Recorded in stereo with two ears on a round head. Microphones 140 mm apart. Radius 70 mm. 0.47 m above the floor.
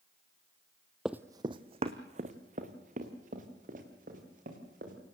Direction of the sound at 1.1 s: 5° right (ahead or behind).